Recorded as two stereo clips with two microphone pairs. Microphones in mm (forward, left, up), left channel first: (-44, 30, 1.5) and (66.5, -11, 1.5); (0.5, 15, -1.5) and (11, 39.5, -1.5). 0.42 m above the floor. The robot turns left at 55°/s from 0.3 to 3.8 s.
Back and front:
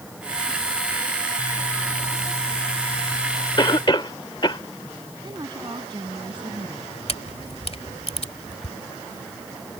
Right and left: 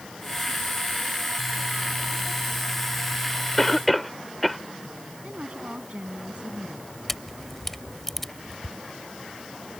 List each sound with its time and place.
3.6 s a cough: 170° left; by 4.6 s 155° left
5.2 s a woman speaking: 30° left
7.1 s a camera shutter: 165° left